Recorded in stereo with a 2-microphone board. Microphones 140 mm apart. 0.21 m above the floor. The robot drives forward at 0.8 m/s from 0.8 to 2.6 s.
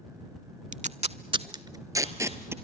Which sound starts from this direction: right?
Tape being pulled, at 0.7 s.